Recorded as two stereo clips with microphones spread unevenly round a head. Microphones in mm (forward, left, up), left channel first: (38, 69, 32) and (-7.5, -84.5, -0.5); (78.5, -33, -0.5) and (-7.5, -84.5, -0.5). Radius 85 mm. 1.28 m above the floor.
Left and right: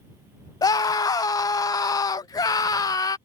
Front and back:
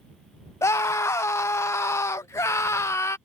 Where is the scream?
5° left.